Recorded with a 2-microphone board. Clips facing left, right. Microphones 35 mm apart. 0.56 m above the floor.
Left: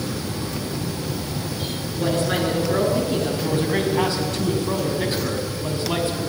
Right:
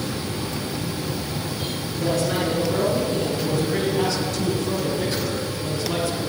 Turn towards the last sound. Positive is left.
turn(degrees=30)  # may be behind; listen again after turning